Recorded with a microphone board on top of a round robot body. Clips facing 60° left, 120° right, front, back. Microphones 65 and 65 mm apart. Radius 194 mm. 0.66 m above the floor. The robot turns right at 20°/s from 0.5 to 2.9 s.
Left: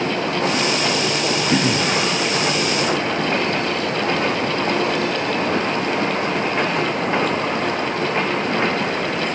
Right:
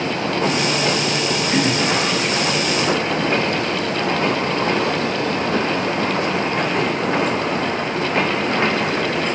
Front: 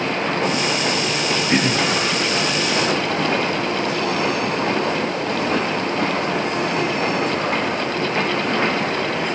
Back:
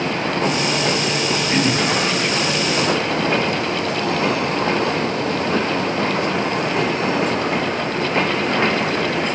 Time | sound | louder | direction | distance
1.5 | throat clearing | even, even | 50° left | 8 m